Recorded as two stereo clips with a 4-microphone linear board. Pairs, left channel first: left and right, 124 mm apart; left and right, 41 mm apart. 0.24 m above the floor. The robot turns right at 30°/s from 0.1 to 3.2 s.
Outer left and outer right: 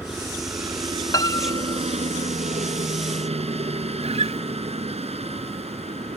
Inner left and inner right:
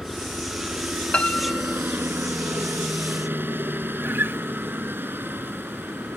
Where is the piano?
30° left (ahead or behind); by 1.8 s 25° left (ahead or behind).